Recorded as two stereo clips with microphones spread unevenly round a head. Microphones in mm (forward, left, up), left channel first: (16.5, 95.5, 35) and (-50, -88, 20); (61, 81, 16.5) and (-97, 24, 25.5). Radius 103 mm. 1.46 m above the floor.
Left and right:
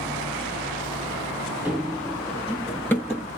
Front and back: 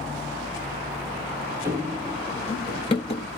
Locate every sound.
1.6 s running footsteps: 160° left, 1.5 m; by 3.3 s 5° left, 1.7 m